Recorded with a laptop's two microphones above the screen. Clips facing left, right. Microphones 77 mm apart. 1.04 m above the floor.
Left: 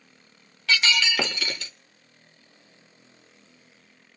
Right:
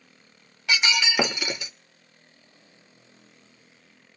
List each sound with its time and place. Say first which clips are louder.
0.7 s breaking glass: left 1 dB; 20° right (ahead or behind), 0.7 m